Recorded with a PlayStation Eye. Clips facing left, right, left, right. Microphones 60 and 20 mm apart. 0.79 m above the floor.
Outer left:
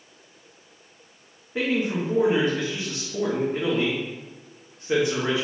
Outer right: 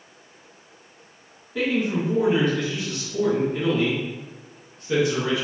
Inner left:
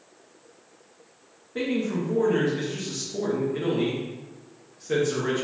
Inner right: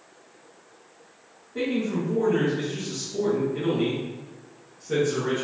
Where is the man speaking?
30° left (ahead or behind), 1.0 m.